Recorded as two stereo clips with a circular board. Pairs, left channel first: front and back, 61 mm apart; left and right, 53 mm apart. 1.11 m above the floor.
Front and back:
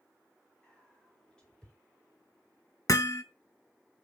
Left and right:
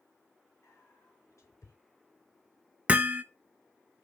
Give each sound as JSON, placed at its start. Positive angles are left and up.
{"t": 0.6, "sound": "whispering", "azimuth_deg": 75, "distance_m": 4.0}
{"t": 2.9, "sound": "hammering", "azimuth_deg": -25, "distance_m": 0.9}